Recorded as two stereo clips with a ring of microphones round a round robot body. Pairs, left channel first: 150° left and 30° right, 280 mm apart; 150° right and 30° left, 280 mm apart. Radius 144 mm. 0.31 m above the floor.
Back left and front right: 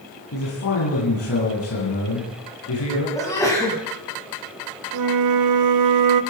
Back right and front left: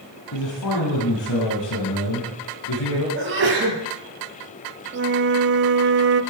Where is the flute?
20° right, 0.7 m.